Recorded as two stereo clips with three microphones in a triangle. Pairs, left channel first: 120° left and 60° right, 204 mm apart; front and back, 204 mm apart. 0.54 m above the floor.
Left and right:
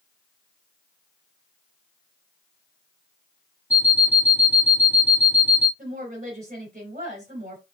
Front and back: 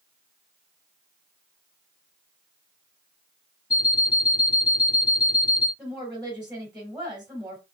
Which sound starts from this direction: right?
A woman speaking, at 5.8 s.